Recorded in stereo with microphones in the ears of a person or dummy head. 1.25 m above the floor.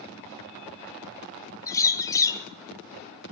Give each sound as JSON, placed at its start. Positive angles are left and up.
{"t": 1.7, "sound": "a bird", "side_deg": 20, "distance_m": 2.0}